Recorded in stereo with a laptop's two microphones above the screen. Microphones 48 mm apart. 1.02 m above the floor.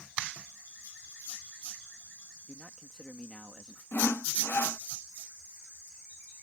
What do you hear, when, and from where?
2.5 s a man speaking: 10° right (ahead or behind)
3.9 s sawing: 55° left (ahead or behind)